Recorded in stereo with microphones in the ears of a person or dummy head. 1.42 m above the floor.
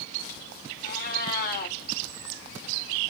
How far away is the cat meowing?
About 1.6 m.